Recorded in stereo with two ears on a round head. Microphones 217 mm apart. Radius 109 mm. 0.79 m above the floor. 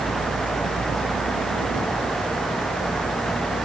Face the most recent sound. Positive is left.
No sound to turn to.